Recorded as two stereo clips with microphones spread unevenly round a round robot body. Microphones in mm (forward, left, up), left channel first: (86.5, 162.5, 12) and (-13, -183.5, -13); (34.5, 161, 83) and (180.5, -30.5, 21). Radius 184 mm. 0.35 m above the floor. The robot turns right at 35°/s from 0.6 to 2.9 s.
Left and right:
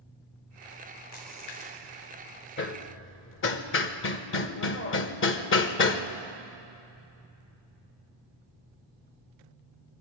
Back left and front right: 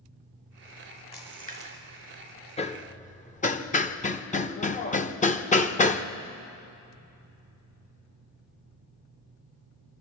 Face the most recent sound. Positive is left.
turn(degrees=70)